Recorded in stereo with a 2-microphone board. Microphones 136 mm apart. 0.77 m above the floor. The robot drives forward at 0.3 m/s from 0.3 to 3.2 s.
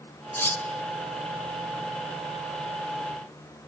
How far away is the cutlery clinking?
About 1.3 m.